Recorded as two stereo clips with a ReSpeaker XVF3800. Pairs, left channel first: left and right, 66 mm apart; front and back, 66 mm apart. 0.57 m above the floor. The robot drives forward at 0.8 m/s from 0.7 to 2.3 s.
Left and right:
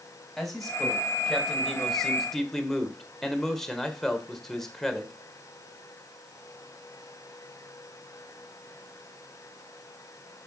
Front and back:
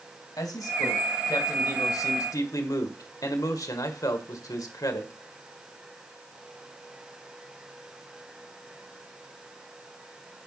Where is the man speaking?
5° left, 3 m.